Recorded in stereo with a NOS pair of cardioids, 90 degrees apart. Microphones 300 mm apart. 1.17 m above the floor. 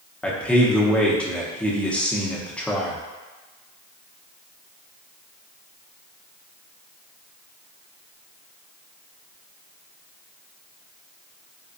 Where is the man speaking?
5° left, 0.9 m.